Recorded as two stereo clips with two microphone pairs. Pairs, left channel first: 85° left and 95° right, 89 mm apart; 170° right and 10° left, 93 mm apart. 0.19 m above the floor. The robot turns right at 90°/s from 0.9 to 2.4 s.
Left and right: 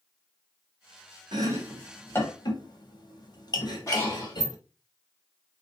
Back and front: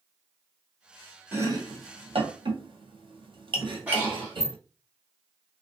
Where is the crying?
No crying in this recording.